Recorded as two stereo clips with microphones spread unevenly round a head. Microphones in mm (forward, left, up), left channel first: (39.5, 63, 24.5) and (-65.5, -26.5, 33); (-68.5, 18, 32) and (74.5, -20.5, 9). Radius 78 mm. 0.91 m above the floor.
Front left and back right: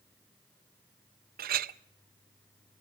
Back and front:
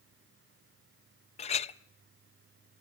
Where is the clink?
145° right, 0.6 m.